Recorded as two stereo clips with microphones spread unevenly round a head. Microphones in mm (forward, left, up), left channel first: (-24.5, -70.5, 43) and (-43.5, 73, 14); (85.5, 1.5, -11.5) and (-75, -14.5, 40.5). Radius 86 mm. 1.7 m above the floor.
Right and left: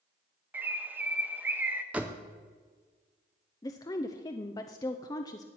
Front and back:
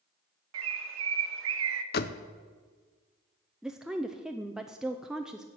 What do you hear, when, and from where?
0.5 s a bird: 175° left, 0.9 m
1.9 s a door slam: 5° left, 0.6 m
3.6 s a woman speaking: 115° right, 0.5 m